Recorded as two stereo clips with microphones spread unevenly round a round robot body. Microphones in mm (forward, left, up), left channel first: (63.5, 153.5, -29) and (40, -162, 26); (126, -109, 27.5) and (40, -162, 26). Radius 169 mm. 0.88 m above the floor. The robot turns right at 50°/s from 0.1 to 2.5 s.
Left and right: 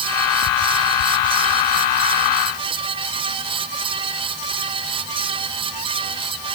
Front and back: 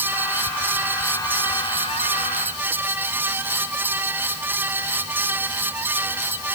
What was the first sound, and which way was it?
Only background noise.